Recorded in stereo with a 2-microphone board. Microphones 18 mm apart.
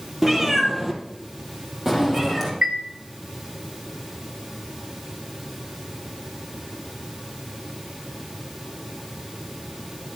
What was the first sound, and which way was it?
A cat meowing, 15° right (ahead or behind).